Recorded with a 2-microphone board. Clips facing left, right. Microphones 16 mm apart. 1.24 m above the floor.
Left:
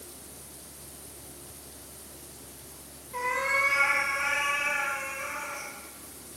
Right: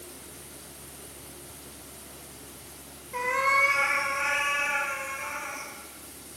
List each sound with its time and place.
3.1 s a cat meowing: 40° right (ahead or behind), 1.3 m; by 5.7 s 70° right (ahead or behind), 2.5 m